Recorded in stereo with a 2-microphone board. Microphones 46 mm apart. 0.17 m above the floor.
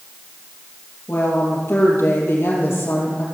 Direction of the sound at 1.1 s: 75° left (ahead or behind).